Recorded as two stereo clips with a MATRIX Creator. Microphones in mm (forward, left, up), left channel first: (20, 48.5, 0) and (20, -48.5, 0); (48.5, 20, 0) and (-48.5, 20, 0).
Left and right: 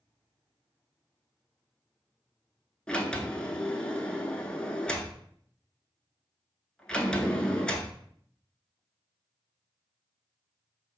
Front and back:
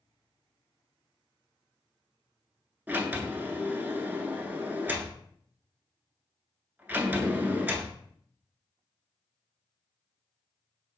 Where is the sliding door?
155° left, 0.5 m.